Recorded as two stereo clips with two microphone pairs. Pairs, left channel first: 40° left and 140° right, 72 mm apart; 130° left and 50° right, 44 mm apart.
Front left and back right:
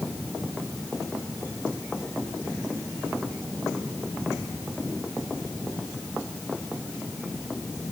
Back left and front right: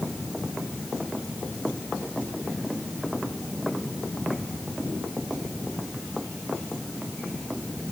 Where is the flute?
No flute in this recording.